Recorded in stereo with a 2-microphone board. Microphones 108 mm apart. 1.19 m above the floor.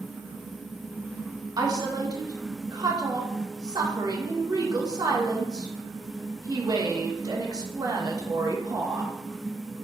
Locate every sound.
1.6 s a woman speaking: 35° right (ahead or behind), 0.6 m